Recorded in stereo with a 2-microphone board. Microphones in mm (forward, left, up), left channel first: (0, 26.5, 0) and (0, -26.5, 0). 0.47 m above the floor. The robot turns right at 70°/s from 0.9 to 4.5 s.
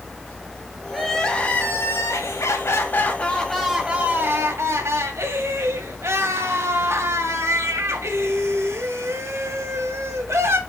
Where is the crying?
5° right, 1.9 m; by 10.6 s 115° right, 1.9 m.